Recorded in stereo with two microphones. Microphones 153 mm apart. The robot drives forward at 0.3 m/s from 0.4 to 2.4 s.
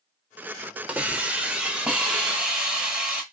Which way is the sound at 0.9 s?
10° right (ahead or behind).